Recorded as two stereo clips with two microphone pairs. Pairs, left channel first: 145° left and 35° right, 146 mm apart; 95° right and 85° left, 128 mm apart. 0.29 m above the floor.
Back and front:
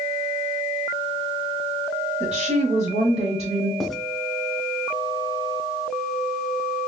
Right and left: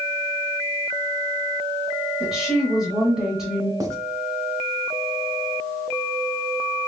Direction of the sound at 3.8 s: 60° left.